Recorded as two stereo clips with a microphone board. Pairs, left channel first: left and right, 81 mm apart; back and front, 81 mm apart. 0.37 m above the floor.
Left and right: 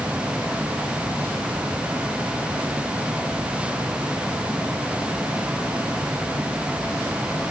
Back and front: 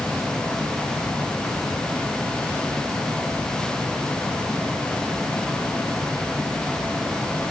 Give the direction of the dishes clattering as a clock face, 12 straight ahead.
No dishes clattering in this recording.